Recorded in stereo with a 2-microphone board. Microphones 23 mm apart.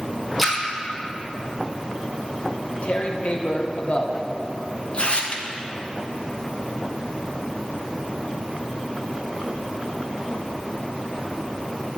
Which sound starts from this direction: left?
Tearing paper, at 2.5 s.